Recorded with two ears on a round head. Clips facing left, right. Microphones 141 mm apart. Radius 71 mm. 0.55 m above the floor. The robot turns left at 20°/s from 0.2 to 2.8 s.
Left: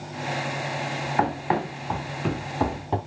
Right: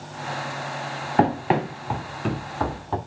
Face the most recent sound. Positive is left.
turn(degrees=25)  # may be behind; listen again after turning